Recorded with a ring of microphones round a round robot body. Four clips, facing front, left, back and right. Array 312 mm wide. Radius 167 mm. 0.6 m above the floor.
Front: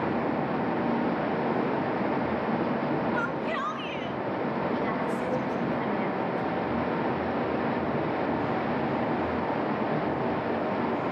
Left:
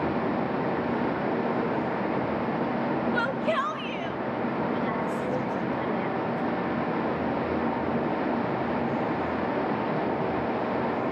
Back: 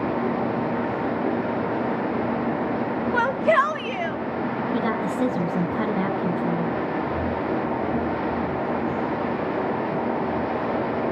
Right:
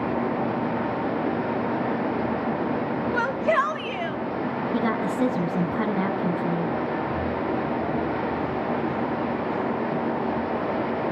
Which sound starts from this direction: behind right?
A woman speaking, at 4.7 s.